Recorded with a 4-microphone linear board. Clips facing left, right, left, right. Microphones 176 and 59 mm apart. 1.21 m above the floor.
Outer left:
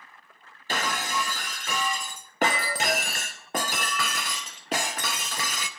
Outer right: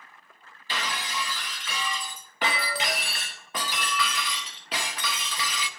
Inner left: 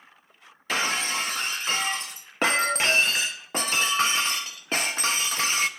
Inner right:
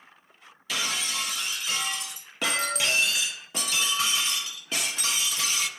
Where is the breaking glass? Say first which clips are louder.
Outer left 4 dB, inner left 5 dB; 45° left (ahead or behind), 0.6 m.